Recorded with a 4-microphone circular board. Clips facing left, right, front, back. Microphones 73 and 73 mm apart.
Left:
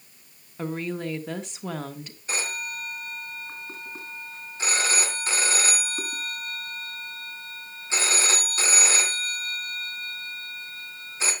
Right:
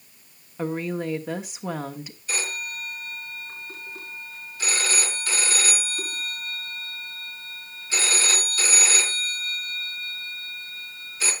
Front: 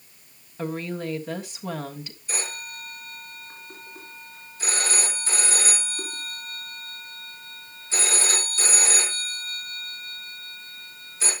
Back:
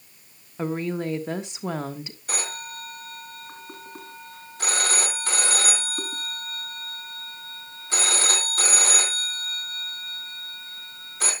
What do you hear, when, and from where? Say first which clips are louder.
0.6 s a woman speaking: right 3 dB, back 3 dB; 155° right, 1.2 m
2.3 s a phone ringing: even, back 1 dB; 155° left, 3.5 m